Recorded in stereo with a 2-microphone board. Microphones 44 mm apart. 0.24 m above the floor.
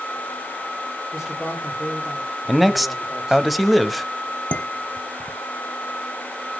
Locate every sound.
1.1 s a man speaking: 10° right (ahead or behind), 7.5 m
2.5 s a man speaking: centre (ahead or behind), 1.1 m
4.5 s dishes clattering: 30° left (ahead or behind), 1.1 m